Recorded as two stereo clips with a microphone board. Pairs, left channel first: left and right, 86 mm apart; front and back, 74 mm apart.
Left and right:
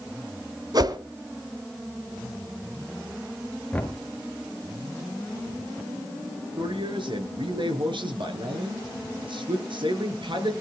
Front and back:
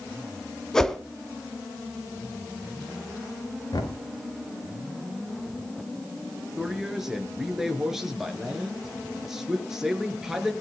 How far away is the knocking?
About 2 m.